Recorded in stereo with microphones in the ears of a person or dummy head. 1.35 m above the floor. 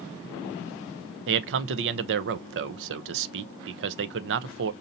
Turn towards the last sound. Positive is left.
turn(degrees=-70)  # may be behind; listen again after turning